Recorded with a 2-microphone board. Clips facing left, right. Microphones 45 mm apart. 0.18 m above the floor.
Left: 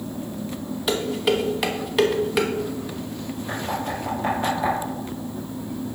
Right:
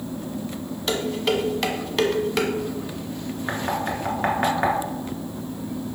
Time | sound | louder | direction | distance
0.9 | dishes clattering | left 1 dB | 5° left (ahead or behind) | 0.9 m
3.5 | knocking | right 2 dB | 55° right (ahead or behind) | 1.7 m